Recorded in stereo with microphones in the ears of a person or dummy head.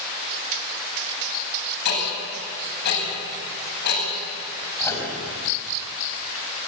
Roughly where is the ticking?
Left.